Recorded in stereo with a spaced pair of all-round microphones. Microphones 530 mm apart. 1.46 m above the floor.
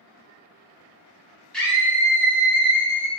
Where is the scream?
Centre (ahead or behind), 1.4 m; by 3.1 s 45° left (ahead or behind), 1.3 m.